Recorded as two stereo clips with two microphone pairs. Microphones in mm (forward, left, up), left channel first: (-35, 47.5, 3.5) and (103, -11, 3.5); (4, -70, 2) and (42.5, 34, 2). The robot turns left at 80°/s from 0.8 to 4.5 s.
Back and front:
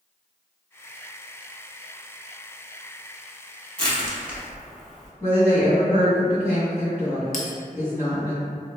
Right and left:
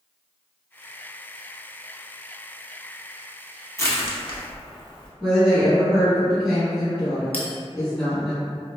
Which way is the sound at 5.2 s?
125° left.